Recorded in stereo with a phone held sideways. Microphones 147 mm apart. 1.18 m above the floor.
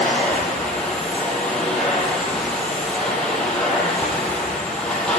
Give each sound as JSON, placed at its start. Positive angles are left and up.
{"t": 0.0, "sound": "a machine running", "side_deg": 5, "distance_m": 7.5}